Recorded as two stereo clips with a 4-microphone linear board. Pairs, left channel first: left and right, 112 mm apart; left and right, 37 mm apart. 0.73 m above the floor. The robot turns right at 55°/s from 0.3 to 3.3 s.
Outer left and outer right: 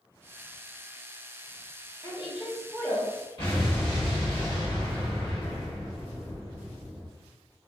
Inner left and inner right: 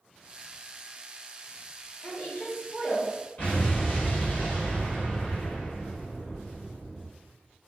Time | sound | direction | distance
2.0 | a woman speaking | 120° left | 1.1 m
3.4 | an explosion | 50° left (ahead or behind) | 1.9 m